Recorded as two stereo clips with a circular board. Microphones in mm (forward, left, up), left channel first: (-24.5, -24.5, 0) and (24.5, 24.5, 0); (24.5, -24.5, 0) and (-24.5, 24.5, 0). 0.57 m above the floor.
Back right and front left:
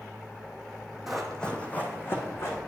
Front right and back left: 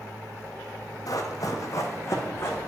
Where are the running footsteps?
40° right, 1.1 m; by 2.6 s 90° right, 1.8 m.